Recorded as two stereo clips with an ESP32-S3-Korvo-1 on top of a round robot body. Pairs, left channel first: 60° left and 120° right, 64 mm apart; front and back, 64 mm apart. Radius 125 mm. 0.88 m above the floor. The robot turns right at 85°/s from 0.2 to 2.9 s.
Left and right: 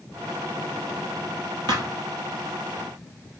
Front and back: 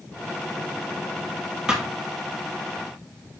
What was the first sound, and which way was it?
A thud, 100° right.